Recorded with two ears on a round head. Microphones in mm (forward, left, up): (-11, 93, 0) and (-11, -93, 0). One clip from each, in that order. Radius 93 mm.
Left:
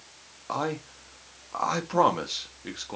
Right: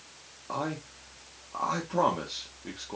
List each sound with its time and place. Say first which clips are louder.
0.5 s a man speaking: left 4 dB; 45° left (ahead or behind), 1.2 m